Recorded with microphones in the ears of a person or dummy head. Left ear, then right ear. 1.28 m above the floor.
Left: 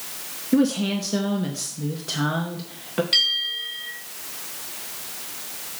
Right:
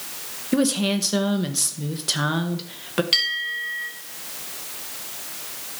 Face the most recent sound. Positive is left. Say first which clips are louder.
# left 2 dB
turn(degrees=-25)  # may be behind; listen again after turning